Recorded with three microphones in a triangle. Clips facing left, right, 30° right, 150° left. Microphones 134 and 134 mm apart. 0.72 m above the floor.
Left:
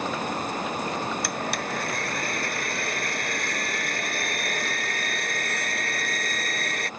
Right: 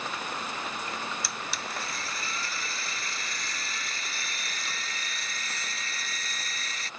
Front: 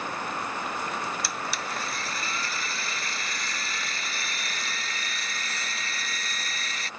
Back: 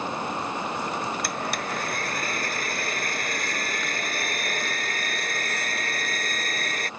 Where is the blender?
115° left.